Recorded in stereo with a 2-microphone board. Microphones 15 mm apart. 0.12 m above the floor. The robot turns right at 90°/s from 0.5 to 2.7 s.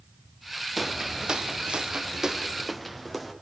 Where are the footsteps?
5° right (ahead or behind), 1.0 m; by 3.3 s 5° left (ahead or behind), 3.5 m.